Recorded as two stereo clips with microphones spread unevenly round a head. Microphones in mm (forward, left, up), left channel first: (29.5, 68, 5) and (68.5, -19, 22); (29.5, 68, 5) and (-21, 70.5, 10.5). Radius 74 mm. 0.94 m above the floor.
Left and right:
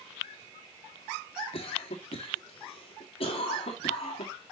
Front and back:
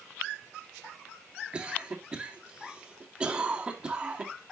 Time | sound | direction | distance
1.5 | a cough | 105° left | 2 m